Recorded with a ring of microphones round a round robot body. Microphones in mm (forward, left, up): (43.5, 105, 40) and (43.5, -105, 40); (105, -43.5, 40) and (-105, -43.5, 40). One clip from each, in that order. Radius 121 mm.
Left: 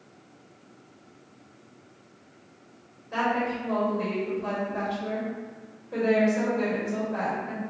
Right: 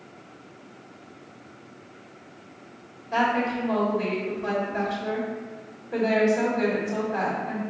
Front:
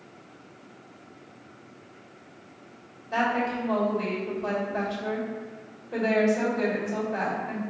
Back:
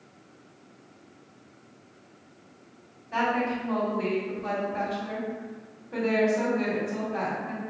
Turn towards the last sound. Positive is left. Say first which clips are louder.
# right 3 dB, front 1 dB
turn(degrees=-10)